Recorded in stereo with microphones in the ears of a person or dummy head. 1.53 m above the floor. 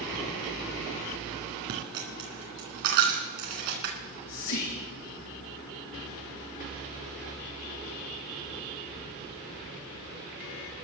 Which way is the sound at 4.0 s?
60° left (ahead or behind).